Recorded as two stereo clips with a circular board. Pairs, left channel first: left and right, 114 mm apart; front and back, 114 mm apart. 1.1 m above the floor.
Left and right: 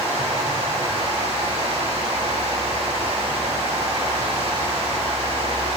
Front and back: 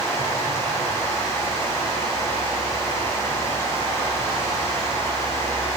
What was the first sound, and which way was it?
Running water, 65° right.